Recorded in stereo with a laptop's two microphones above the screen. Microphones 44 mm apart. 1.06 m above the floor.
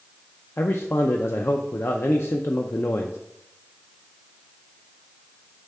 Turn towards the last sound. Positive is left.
turn(degrees=60)  # may be behind; listen again after turning